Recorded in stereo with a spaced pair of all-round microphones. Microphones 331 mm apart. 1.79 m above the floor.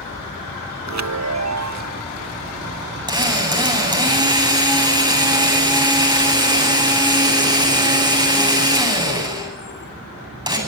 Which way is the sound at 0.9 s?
55° right (ahead or behind).